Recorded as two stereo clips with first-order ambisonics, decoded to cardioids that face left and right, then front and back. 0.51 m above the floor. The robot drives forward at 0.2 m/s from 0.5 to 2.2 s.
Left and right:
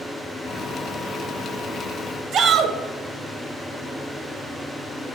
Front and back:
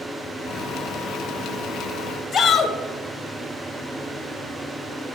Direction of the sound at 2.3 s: 65° right.